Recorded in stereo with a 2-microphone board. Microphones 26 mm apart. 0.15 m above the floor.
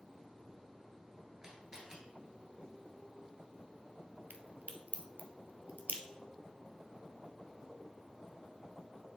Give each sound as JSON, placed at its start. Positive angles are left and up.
{"t": 1.4, "sound": "a camera shutter", "side_deg": -30, "distance_m": 1.6}
{"t": 4.3, "sound": "a crack", "side_deg": -75, "distance_m": 0.8}